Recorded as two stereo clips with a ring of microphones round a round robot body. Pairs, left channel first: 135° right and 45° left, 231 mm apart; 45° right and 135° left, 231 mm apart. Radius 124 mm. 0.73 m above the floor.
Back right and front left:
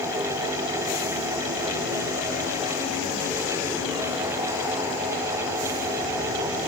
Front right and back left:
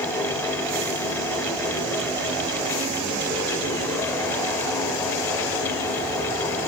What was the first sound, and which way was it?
Only background noise.